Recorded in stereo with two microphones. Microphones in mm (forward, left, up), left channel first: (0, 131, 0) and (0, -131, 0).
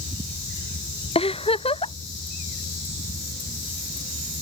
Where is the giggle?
20° left (ahead or behind).